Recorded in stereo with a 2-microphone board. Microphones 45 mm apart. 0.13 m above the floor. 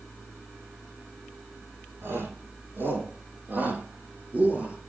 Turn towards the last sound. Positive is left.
turn(degrees=-25)  # may be behind; listen again after turning